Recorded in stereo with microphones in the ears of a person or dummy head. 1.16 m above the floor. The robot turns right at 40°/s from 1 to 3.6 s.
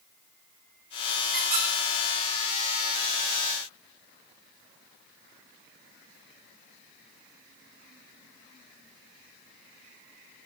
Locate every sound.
1.3 s a squeak: 5° right (ahead or behind), 3 m; by 1.7 s 15° right (ahead or behind), 3 m